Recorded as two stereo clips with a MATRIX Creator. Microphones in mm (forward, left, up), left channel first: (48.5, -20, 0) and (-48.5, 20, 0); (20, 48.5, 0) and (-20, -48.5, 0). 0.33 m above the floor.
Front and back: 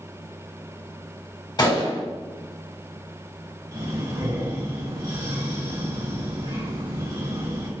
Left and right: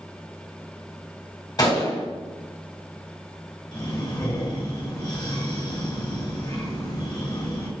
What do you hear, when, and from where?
1.6 s a gunshot: 20° left, 1.1 m
3.7 s breathing: 110° left, 1.2 m